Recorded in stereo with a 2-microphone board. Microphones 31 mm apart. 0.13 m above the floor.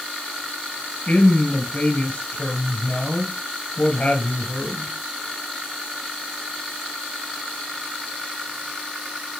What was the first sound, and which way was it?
A woman speaking, 40° left (ahead or behind).